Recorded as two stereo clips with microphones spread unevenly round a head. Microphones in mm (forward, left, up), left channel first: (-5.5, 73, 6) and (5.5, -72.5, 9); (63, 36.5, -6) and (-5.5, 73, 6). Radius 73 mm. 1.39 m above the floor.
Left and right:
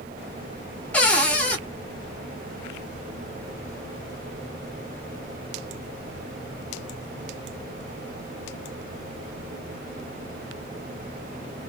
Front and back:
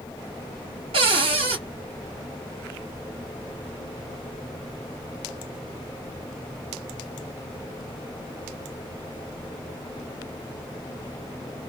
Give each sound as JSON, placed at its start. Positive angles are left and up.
{"t": 0.9, "sound": "a cupboard door", "azimuth_deg": 175, "distance_m": 1.3}